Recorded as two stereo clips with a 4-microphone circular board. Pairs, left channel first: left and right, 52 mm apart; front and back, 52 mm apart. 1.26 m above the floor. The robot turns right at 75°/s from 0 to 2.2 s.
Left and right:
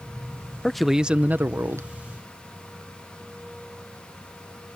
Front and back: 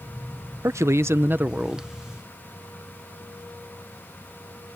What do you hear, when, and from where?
0.6 s a man speaking: 170° left; by 1.9 s 100° right